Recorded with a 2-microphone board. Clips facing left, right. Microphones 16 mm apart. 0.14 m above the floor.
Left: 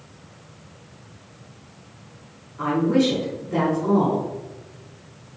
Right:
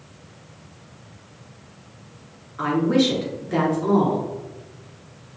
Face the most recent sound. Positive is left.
turn(degrees=-55)  # may be behind; listen again after turning